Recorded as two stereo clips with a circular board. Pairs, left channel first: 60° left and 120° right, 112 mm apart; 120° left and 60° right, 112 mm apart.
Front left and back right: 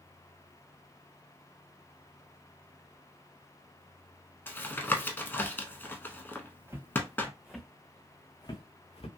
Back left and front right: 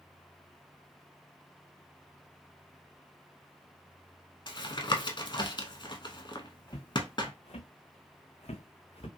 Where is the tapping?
125° left, 0.6 m.